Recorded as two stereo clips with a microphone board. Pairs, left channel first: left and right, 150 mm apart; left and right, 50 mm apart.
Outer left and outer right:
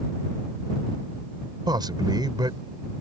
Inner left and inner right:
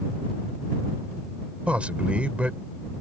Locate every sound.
1.7 s a man speaking: 30° right (ahead or behind)